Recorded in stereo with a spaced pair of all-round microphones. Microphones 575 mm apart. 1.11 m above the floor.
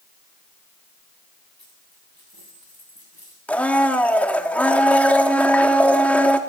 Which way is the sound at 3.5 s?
Centre (ahead or behind).